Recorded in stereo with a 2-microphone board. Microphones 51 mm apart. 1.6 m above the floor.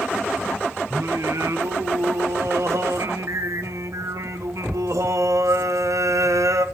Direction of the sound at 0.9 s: 75° right (ahead or behind).